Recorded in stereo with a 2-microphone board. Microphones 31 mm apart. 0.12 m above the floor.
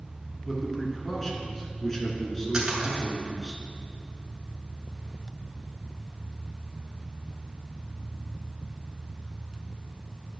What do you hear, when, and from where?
0.5 s a man speaking: 15° left (ahead or behind), 1.3 m
2.5 s a splash: 25° right (ahead or behind), 1.6 m